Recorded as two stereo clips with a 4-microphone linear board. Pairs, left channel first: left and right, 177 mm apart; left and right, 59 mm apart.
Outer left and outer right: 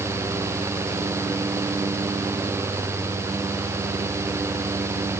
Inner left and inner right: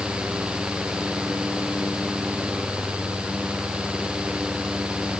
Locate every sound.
Only background noise.